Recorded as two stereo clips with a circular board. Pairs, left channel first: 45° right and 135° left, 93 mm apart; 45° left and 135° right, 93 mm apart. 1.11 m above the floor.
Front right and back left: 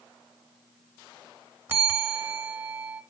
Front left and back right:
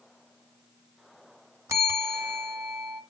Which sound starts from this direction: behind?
A bell, at 1.7 s.